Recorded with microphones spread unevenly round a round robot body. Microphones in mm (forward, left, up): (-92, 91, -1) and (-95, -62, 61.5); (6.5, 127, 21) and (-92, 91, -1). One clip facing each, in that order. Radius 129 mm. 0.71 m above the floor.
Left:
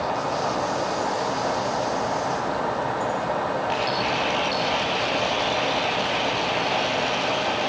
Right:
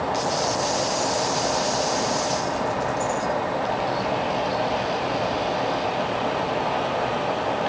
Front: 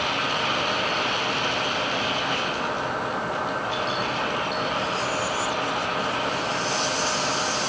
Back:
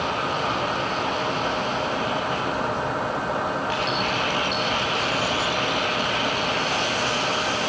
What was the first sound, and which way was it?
Only background noise.